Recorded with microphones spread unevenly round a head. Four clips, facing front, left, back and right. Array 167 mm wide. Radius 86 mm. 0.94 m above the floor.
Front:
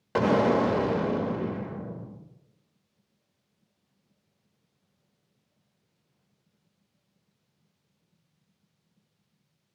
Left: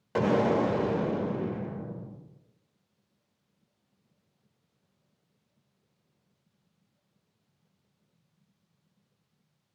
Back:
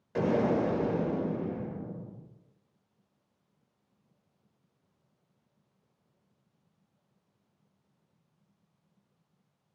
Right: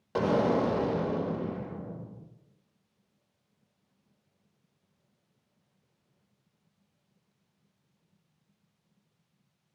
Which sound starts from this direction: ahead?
An explosion, at 0.1 s.